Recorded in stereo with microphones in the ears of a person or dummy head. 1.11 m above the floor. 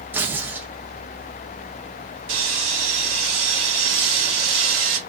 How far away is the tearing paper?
About 0.5 m.